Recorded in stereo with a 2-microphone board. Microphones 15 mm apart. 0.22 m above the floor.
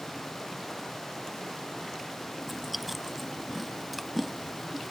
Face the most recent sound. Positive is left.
turn(degrees=-5)  # may be behind; listen again after turning